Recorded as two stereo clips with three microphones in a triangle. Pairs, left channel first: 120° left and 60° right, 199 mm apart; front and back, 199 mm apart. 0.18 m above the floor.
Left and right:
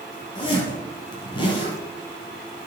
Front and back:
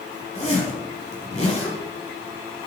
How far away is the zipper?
About 3.5 m.